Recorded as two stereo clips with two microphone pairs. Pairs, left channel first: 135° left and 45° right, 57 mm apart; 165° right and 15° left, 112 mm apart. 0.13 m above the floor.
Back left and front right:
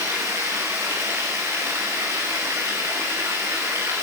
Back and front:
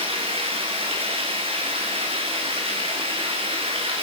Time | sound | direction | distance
0.0 | running water | 15° right | 8 m